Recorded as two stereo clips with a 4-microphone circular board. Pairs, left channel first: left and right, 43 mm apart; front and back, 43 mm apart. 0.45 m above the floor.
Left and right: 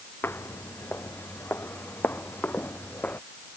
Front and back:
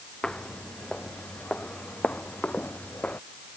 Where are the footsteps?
70° left; by 3.2 s 50° left.